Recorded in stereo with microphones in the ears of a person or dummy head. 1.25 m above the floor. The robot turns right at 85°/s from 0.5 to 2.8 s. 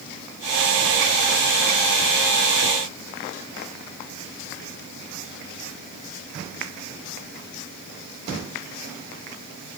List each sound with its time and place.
Only background noise.